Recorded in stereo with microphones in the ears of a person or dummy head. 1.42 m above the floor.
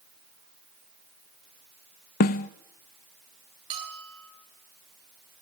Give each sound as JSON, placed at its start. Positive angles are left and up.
{"t": 2.2, "sound": "a snare drum", "side_deg": 45, "distance_m": 0.8}
{"t": 3.7, "sound": "a bell", "side_deg": -30, "distance_m": 9.0}